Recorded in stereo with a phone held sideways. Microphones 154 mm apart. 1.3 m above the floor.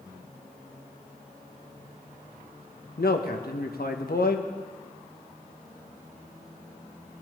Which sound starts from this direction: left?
A man speaking, at 3.0 s.